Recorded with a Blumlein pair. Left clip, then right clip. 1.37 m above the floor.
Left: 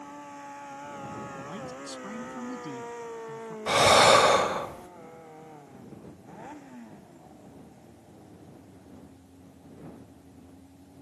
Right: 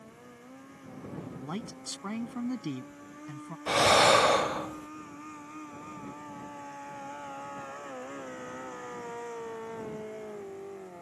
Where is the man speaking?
20° right.